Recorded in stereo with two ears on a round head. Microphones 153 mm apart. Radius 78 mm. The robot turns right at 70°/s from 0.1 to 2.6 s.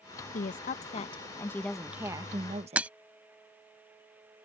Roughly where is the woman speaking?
Left.